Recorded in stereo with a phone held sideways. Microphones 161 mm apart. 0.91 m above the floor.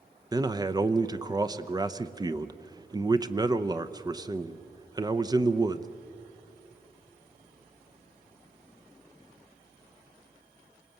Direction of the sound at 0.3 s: 25° right (ahead or behind).